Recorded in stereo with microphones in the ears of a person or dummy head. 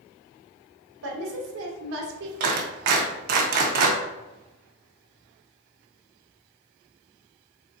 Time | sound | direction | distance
1.0 | a woman speaking | 75° right (ahead or behind) | 1.1 m
2.4 | a clap | 55° right (ahead or behind) | 0.6 m